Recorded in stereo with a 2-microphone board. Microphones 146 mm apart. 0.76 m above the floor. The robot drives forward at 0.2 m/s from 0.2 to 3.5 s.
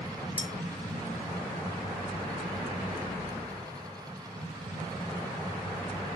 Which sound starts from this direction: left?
Cutlery clinking, at 0.4 s.